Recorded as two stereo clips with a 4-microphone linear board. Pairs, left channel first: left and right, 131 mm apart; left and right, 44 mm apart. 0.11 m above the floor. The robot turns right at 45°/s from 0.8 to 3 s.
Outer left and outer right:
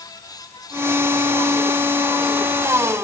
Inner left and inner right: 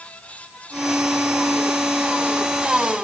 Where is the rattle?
I don't hear a rattle.